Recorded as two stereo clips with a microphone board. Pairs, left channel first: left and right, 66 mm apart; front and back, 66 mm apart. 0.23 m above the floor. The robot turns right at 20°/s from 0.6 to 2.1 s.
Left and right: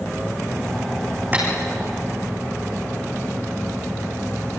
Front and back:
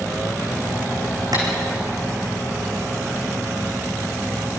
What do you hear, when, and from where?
1.3 s tapping: 155° right, 6.5 m